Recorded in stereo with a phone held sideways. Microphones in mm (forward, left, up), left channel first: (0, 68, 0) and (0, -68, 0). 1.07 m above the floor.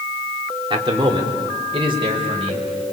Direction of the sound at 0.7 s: 40° right (ahead or behind).